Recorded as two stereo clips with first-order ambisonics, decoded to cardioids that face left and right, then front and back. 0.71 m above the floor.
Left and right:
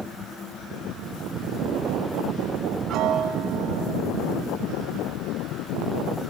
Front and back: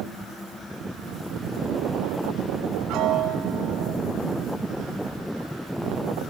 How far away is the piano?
About 4 m.